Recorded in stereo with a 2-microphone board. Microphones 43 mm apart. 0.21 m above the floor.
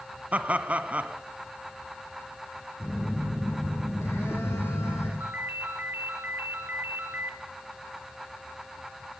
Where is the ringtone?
50° right (ahead or behind), 1.9 m.